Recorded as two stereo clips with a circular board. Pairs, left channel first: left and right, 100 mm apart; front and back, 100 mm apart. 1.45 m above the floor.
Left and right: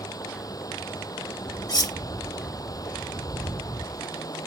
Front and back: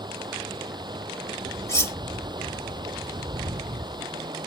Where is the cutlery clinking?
55° left.